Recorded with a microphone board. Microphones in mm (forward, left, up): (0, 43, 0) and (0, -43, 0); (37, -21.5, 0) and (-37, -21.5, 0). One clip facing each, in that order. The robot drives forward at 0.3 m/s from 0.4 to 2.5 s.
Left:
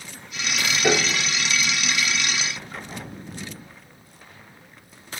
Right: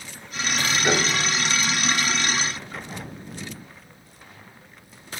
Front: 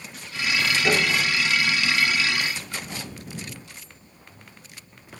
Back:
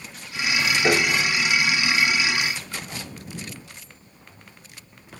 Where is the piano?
130° left, 8 m.